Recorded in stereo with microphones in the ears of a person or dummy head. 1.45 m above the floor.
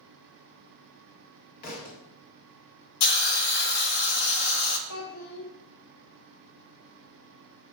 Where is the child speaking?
60° left (ahead or behind), 1.6 m.